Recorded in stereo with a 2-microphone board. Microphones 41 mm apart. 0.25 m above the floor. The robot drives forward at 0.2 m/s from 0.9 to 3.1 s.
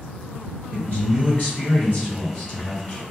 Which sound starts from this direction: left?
A man speaking, at 0.7 s.